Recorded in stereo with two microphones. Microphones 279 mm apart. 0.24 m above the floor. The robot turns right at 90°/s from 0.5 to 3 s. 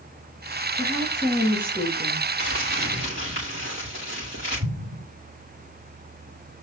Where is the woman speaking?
120° left, 3.5 m; by 2.3 s 105° right, 3.5 m.